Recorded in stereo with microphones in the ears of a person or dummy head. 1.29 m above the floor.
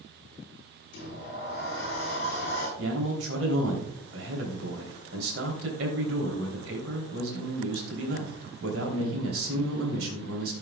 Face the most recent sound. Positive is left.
turn(degrees=-85)